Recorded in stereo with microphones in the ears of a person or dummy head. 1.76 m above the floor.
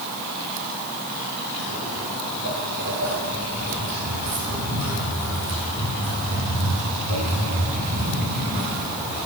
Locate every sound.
1.6 s footsteps: 65° right (ahead or behind), 4.5 m; by 9.3 s 15° right (ahead or behind), 4.5 m